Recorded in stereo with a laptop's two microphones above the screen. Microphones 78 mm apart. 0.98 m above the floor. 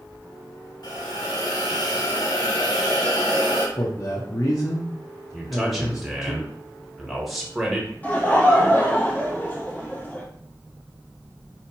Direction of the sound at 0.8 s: 65° left (ahead or behind).